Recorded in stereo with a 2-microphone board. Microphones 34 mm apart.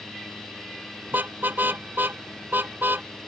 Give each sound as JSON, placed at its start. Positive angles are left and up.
{"t": 1.1, "sound": "a car horn", "side_deg": -70}